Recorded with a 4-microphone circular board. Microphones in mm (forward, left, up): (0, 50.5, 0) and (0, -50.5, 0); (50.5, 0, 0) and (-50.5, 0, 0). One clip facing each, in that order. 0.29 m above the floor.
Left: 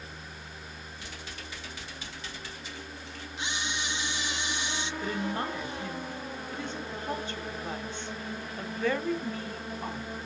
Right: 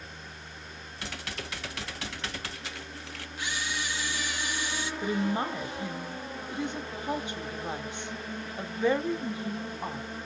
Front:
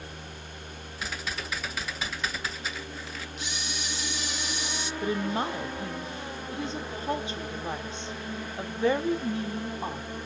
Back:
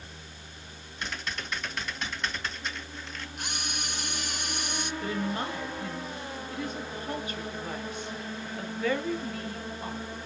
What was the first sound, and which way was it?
Typing on a keyboard, 85° right.